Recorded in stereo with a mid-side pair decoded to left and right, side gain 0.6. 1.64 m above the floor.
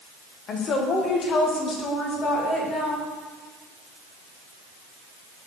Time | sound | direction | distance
0.5 | a woman speaking | 45° left | 1.5 m